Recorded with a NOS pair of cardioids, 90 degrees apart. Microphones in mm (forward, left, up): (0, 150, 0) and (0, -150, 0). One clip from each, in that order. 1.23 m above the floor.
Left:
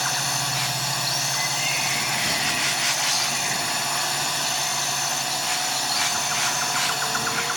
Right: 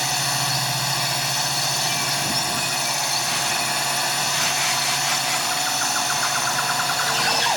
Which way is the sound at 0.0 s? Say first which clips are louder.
Right 2 dB; 20° right.